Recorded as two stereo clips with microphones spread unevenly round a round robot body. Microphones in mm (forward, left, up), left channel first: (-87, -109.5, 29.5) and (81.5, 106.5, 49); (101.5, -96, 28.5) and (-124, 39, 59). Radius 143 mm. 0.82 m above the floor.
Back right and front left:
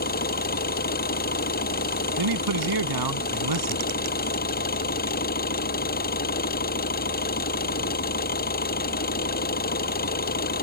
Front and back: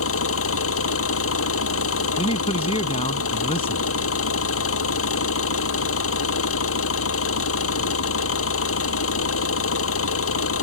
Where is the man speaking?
40° left.